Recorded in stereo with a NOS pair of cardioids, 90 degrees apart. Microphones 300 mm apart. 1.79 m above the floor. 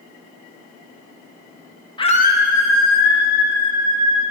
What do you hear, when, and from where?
2.0 s a scream: 15° left, 0.9 m; by 4.3 s 70° left, 2.5 m